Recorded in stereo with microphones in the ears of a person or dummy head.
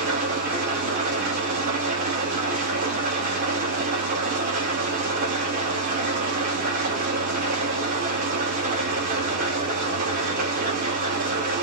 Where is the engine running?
55° right (ahead or behind), 2 m.